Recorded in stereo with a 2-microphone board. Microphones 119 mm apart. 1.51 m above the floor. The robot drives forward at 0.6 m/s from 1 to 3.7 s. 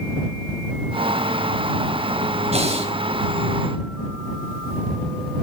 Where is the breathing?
60° right (ahead or behind), 3.5 m; by 2.9 s 55° right (ahead or behind), 3.5 m.